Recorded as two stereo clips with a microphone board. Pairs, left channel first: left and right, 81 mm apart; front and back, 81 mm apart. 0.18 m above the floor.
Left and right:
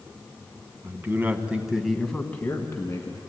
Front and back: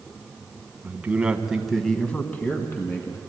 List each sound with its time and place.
0.8 s a man speaking: 125° right, 1.6 m; by 3.2 s 45° left, 2.0 m